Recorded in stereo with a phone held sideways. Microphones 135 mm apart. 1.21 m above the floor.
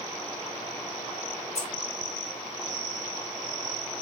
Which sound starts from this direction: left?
Keys jangling, at 1.6 s.